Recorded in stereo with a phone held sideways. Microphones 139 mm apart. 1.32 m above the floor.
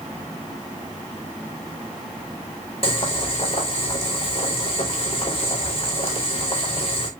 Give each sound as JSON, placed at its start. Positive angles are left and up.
{"t": 2.8, "sound": "boiling", "side_deg": 45, "distance_m": 4.0}